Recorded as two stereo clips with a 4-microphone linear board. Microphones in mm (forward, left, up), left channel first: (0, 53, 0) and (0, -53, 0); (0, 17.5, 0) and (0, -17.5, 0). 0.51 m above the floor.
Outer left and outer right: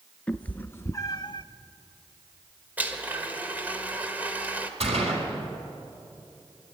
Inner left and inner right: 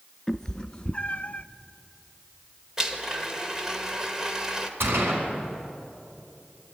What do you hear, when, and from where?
0.3 s a cat meowing: 10° left (ahead or behind), 0.8 m; by 1.4 s 45° left (ahead or behind), 0.5 m
2.8 s a blender: 15° right (ahead or behind), 1.5 m
4.8 s a gunshot: 75° right (ahead or behind), 4.5 m